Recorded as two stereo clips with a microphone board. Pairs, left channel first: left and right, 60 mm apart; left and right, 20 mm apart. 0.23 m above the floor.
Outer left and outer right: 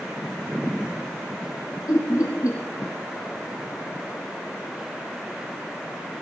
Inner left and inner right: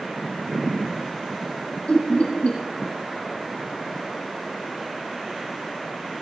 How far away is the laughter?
About 8.5 m.